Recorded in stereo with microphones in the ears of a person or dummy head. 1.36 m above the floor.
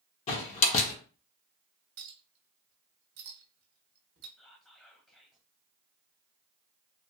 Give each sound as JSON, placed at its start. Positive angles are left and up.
{"t": 0.3, "sound": "a door slam", "side_deg": 40, "distance_m": 1.0}
{"t": 2.0, "sound": "a clink", "side_deg": -55, "distance_m": 0.9}
{"t": 4.4, "sound": "whispering", "side_deg": 10, "distance_m": 0.5}